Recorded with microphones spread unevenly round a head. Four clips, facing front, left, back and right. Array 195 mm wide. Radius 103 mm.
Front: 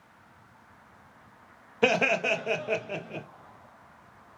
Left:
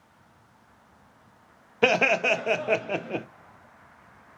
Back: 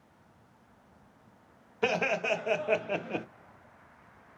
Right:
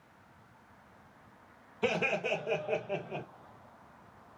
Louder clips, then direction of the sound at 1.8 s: Left 9 dB, front 4 dB; 65° left.